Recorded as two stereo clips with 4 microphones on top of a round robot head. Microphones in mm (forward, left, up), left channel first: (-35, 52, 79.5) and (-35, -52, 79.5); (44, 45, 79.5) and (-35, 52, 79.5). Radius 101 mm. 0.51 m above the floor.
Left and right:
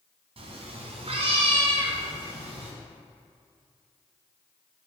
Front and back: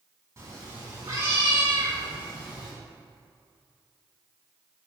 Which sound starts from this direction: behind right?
A cat meowing, at 0.4 s.